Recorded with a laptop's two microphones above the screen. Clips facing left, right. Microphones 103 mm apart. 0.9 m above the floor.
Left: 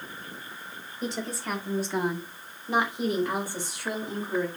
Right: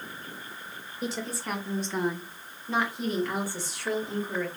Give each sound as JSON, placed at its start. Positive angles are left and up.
{"t": 1.0, "sound": "a woman speaking", "side_deg": -5, "distance_m": 1.2}